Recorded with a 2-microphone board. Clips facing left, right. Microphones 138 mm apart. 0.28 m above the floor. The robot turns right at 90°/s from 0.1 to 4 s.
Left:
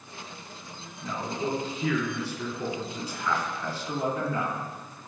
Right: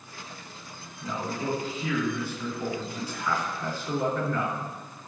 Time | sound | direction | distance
1.0 | a man speaking | 20° right | 4.5 m